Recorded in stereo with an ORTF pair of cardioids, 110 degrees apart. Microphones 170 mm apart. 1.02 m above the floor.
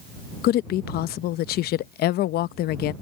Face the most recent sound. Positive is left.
turn(degrees=70)